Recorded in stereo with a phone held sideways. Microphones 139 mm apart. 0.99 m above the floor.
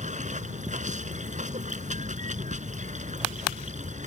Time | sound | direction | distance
0.0 | running water | 60° right (ahead or behind) | ?